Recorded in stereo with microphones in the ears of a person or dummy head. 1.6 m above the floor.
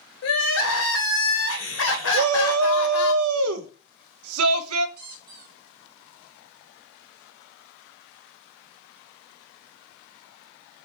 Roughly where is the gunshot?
I don't hear a gunshot.